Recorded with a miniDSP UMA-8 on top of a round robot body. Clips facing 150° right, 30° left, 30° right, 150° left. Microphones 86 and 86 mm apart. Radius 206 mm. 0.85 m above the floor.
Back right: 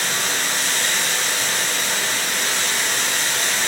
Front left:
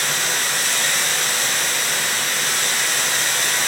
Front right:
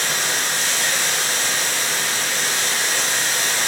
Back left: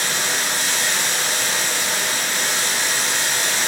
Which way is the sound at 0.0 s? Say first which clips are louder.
Even, even; 155° right.